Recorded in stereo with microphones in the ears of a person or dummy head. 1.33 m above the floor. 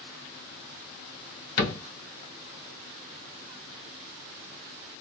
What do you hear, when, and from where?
1.6 s a cupboard door: 55° left (ahead or behind), 0.8 m